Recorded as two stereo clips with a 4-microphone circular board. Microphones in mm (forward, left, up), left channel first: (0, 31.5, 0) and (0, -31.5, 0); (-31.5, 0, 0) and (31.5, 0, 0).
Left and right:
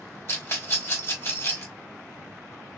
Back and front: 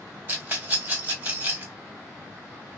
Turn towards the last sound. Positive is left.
turn(degrees=55)